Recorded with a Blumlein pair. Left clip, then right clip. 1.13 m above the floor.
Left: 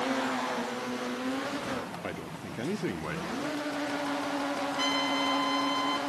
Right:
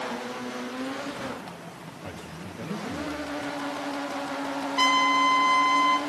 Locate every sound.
2.0 s a man speaking: 25° left, 1.7 m
4.8 s a trumpet: 50° right, 3 m